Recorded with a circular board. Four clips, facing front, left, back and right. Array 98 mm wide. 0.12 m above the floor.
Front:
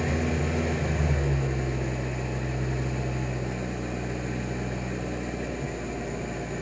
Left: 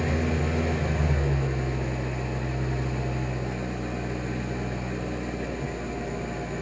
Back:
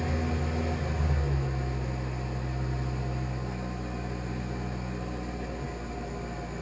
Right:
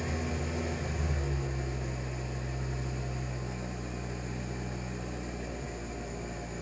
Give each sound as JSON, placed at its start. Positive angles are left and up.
{"t": 0.0, "sound": "an engine running", "azimuth_deg": 40, "distance_m": 1.2}